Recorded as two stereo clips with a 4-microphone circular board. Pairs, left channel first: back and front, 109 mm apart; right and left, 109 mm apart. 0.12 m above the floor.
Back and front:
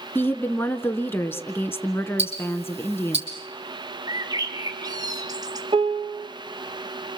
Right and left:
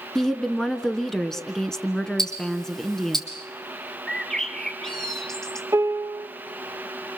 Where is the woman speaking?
165° right, 1.1 m.